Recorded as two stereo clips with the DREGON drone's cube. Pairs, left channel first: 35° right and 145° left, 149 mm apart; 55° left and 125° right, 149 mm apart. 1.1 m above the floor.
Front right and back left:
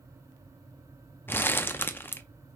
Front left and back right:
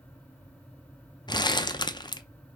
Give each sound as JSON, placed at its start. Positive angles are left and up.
{"t": 1.3, "sound": "crumpling", "azimuth_deg": 30, "distance_m": 0.5}